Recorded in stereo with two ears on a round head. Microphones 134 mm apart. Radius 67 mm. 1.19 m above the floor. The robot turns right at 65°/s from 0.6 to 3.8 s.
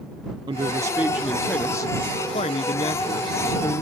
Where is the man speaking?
45° right; by 3.8 s 160° left.